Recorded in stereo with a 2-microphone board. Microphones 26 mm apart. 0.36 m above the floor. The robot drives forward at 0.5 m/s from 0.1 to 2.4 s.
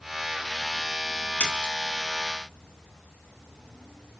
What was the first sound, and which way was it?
A splash, 65° left (ahead or behind).